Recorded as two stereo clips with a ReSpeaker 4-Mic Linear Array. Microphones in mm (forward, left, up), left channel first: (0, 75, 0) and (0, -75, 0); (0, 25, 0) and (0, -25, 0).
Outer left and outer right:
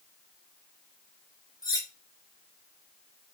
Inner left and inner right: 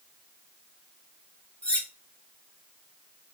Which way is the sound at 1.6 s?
25° left (ahead or behind).